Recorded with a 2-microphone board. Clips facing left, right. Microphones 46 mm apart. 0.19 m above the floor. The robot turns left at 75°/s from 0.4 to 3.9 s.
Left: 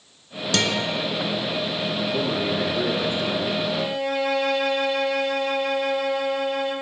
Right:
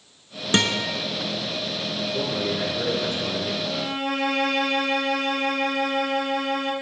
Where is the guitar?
30° right (ahead or behind), 1.4 m; by 0.9 s 10° right (ahead or behind), 1.4 m.